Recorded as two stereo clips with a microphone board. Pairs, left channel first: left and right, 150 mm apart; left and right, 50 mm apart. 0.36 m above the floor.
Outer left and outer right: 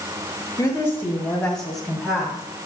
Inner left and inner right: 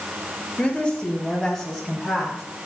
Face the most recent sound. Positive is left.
turn(degrees=-5)  # may be behind; listen again after turning